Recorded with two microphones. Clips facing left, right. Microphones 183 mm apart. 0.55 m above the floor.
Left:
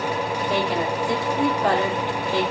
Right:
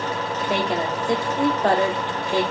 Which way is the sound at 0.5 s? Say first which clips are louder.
Right 1 dB; 15° right (ahead or behind).